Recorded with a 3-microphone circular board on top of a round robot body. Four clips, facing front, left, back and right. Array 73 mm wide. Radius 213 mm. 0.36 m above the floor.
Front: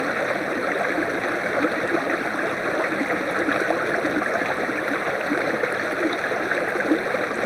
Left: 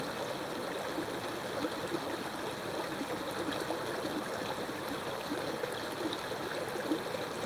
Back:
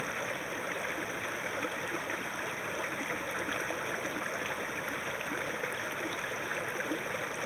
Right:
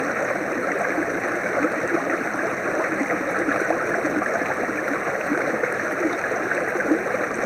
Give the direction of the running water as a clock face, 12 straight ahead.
2 o'clock.